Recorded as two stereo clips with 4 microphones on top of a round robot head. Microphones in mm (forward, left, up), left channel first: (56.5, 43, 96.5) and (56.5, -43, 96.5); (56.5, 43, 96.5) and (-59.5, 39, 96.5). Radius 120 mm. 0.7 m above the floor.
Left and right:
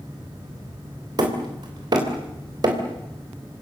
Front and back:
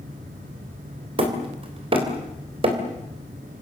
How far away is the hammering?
About 3.5 m.